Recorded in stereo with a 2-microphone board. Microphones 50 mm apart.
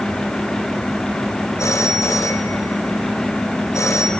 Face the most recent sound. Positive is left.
turn(degrees=80)